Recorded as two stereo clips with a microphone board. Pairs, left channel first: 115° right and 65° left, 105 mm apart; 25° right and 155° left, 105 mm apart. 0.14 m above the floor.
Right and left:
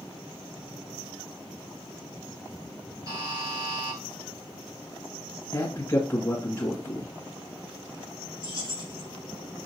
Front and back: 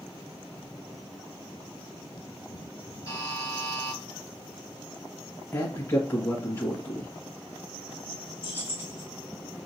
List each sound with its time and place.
3.1 s a buzzer: 30° left, 3 m
5.5 s a man speaking: 70° right, 1.8 m
8.4 s keys jangling: 90° left, 1.8 m